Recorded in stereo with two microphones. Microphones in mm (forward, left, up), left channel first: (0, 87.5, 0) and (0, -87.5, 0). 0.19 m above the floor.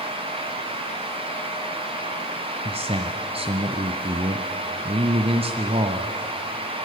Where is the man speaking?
35° right (ahead or behind), 1.3 m.